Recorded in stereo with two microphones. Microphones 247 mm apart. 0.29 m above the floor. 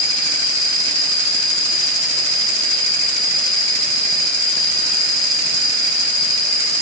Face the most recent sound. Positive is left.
turn(degrees=-90)